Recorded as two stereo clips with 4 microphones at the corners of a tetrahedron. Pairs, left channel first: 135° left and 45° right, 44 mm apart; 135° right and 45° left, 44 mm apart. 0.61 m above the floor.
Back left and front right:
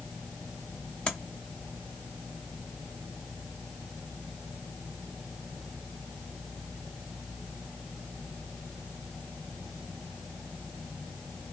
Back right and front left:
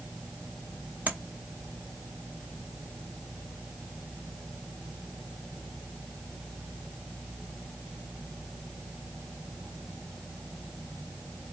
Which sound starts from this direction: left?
Tapping, at 1.1 s.